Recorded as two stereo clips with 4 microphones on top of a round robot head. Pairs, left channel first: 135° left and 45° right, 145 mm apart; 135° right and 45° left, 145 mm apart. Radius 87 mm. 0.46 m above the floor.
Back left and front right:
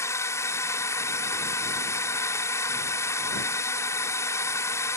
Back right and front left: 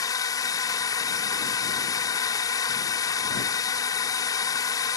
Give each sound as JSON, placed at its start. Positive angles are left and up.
{"t": 0.0, "sound": "a drone", "azimuth_deg": -170}